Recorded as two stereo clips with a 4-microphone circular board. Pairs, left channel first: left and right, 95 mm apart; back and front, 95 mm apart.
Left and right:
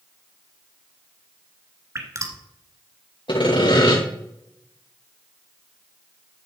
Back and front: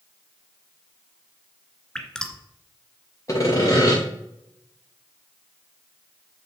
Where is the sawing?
125° left, 5 m.